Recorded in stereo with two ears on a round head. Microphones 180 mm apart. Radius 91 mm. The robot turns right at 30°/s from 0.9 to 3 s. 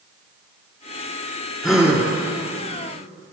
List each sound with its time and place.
1.6 s a gasp: centre (ahead or behind), 1.3 m; by 2.0 s 10° right (ahead or behind), 1.3 m